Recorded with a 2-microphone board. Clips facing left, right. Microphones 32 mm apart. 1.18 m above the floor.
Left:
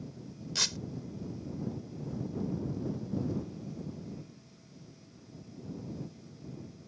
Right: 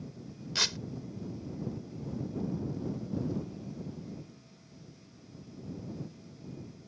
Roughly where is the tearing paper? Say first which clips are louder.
Right 2 dB; right.